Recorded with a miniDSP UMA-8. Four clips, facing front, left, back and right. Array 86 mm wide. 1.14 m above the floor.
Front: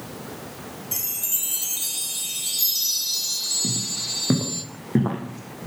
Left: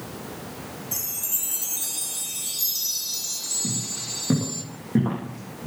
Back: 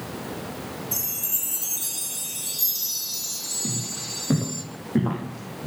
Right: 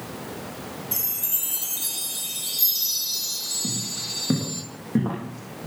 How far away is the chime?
About 1.2 m.